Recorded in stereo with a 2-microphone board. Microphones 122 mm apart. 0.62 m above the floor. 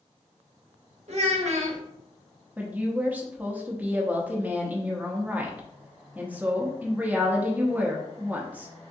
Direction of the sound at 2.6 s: 15° right (ahead or behind).